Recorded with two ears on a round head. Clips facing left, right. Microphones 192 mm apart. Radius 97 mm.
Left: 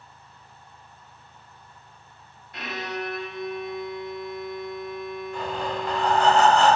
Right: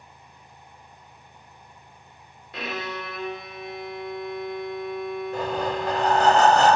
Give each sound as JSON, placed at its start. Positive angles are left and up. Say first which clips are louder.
{"t": 2.5, "sound": "a violin", "louder": "even", "side_deg": -55, "distance_m": 0.6}
{"t": 5.3, "sound": "breathing", "louder": "right 3 dB", "side_deg": -35, "distance_m": 0.6}